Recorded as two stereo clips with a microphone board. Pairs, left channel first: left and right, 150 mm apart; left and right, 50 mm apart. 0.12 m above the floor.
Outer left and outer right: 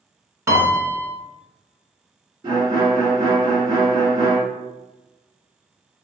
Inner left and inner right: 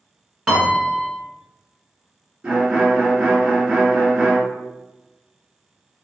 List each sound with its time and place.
0.5 s a piano: 20° right (ahead or behind), 1.1 m
2.4 s a violin: 25° right (ahead or behind), 1.8 m